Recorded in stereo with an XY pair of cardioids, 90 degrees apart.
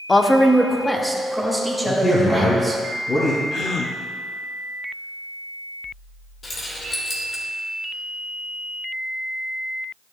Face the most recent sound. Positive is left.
turn(degrees=40)